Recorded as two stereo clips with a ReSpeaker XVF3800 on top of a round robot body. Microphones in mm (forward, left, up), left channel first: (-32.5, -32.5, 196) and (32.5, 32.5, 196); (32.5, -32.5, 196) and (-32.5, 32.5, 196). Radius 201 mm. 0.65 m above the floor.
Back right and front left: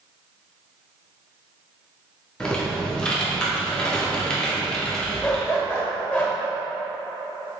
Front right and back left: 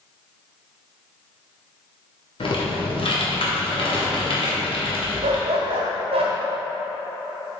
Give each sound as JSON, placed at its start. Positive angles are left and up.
{"t": 2.4, "sound": "typing on a keyboard", "azimuth_deg": -55, "distance_m": 1.8}
{"t": 5.2, "sound": "a dog barking", "azimuth_deg": 150, "distance_m": 1.2}